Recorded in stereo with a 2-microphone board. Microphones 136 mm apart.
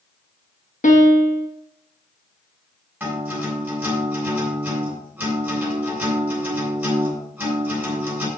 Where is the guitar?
15° right (ahead or behind), 6 m.